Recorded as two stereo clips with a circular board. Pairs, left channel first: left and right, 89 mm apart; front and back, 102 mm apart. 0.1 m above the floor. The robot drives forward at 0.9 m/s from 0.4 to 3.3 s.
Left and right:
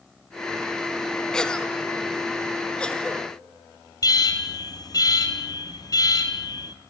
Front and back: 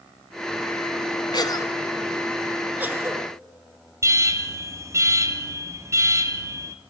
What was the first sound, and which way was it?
A cough, 15° left.